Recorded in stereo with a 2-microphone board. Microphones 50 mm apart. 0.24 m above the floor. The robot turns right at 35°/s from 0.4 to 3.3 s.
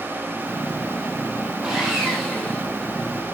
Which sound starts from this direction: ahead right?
Sawing, at 1.6 s.